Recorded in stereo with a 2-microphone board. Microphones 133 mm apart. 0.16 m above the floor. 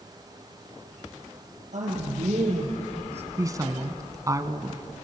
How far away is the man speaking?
About 5 m.